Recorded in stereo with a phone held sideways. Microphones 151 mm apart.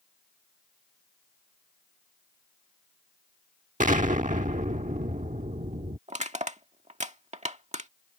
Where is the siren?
I don't hear a siren.